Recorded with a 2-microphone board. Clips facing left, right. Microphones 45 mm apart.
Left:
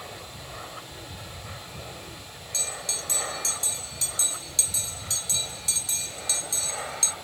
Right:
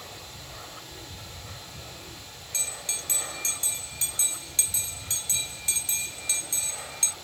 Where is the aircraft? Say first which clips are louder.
Left 3 dB; 15° left (ahead or behind); by 7.2 s 30° left (ahead or behind).